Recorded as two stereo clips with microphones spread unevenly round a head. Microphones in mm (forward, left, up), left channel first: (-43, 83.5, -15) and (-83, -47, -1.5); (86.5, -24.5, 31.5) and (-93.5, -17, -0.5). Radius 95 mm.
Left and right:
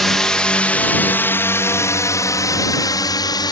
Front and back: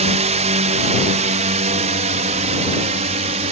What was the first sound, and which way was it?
A drone, 160° left.